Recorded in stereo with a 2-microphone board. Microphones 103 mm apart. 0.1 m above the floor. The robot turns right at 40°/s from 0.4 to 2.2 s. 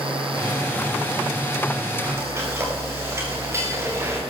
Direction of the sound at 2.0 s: 20° right (ahead or behind).